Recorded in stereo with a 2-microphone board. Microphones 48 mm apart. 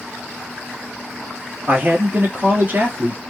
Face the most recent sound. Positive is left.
turn(degrees=-40)  # may be behind; listen again after turning